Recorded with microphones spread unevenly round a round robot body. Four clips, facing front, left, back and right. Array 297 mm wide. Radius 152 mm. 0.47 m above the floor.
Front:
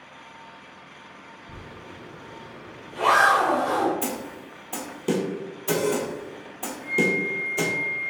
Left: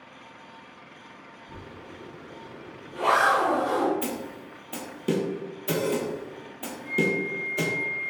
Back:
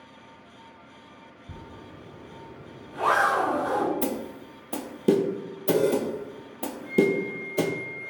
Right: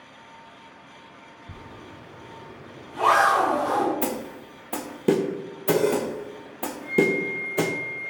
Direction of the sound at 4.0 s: 125° right.